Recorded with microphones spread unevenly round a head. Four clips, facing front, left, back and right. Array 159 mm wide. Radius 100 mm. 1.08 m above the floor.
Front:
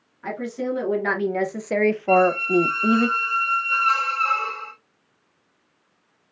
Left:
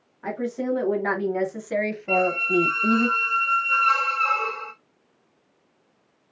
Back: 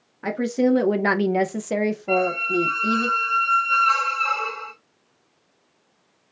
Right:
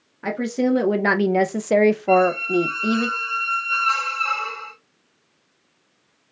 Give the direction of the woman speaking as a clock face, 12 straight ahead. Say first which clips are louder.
Right 5 dB, back 6 dB; 5 o'clock.